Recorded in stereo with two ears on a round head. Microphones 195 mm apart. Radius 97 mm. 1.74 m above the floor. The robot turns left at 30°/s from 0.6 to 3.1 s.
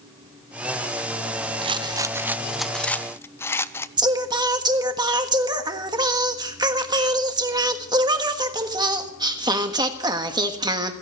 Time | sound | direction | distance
1.6 | a rattle | 150° right | 0.5 m
4.0 | singing | 20° right (ahead or behind) | 1.4 m